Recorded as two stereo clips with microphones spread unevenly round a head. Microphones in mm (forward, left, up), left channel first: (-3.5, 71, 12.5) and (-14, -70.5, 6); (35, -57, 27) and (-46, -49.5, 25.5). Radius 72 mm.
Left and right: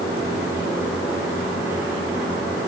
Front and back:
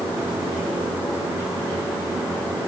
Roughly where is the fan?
Behind right.